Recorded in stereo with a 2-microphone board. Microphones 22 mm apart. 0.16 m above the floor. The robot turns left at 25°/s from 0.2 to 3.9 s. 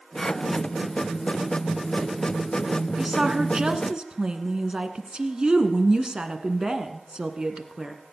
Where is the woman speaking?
30° right (ahead or behind), 1.4 m; by 8.0 s 40° right (ahead or behind), 1.4 m.